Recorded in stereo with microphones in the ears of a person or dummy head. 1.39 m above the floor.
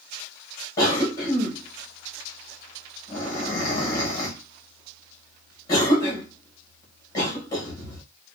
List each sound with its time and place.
0.8 s a cough: 20° left (ahead or behind), 1.8 m